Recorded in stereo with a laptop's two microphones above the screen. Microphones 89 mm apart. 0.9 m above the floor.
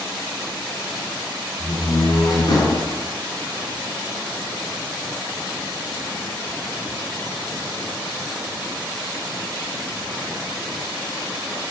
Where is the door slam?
50° left (ahead or behind), 7.5 m.